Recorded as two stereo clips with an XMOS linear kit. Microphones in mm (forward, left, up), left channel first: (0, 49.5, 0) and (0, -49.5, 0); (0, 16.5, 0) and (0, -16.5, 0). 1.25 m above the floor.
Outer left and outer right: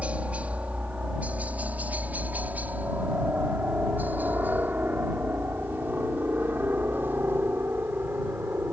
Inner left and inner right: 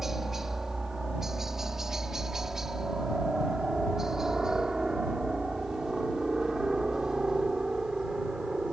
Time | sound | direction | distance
0.0 | a helicopter | 10° right (ahead or behind) | ?